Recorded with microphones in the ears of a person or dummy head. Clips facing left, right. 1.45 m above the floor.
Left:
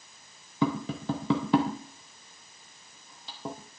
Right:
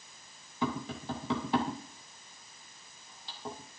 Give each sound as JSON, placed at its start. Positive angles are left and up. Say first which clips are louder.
{"t": 0.6, "sound": "tapping", "louder": "left 6 dB", "side_deg": 70, "distance_m": 2.5}